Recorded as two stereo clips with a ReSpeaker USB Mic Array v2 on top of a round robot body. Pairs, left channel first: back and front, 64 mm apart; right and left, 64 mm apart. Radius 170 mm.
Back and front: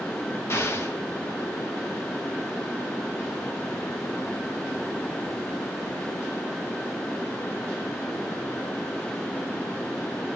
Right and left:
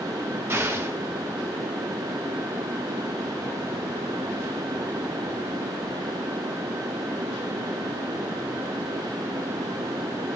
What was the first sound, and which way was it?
An explosion, 140° left.